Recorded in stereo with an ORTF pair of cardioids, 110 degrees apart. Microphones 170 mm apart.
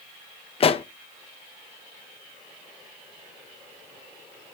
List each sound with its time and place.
0.6 s a pop: 35° left, 0.6 m